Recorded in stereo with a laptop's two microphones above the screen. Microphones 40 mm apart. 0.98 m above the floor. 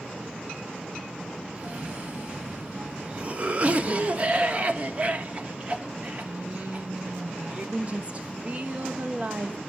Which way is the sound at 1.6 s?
35° right (ahead or behind).